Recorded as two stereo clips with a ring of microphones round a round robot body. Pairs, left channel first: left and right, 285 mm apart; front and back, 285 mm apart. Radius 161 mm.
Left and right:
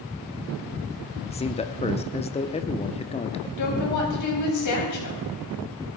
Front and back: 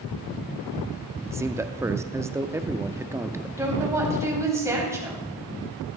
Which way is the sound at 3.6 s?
100° left.